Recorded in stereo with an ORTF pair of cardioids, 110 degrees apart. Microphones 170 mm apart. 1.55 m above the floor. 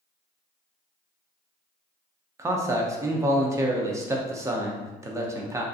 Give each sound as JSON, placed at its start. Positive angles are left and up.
{"t": 2.4, "sound": "a man speaking", "azimuth_deg": -15, "distance_m": 0.5}